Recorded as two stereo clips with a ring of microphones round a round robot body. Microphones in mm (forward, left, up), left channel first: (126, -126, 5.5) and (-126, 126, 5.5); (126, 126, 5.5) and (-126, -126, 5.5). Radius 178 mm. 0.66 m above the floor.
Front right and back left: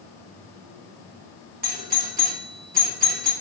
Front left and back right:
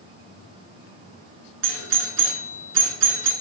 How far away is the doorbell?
About 1.6 m.